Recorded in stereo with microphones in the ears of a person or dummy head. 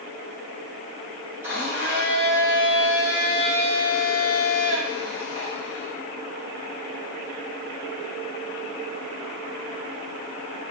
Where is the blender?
15° right (ahead or behind), 1.7 m.